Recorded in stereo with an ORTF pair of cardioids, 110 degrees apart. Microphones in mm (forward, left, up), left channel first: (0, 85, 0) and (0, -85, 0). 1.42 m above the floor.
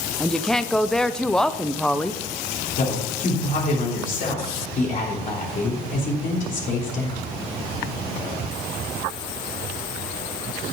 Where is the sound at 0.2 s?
5° left, 0.6 m.